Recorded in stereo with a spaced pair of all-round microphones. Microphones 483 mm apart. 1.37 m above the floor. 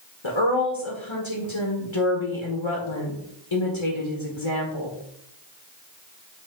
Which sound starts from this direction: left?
A woman speaking, at 0.2 s.